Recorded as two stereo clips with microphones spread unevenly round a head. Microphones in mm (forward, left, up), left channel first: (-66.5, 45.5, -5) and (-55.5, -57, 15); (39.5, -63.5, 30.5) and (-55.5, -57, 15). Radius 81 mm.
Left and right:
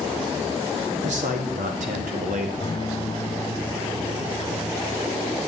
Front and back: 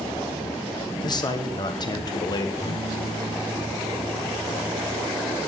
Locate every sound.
1.0 s a man speaking: 50° right, 1.6 m
2.6 s a guitar: 45° left, 2 m